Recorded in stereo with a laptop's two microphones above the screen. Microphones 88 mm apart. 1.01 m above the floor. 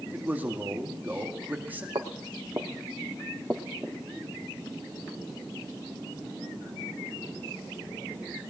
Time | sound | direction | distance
0.1 | a man speaking | 20° right (ahead or behind) | 1.9 m
1.9 | footsteps | 50° right (ahead or behind) | 1.9 m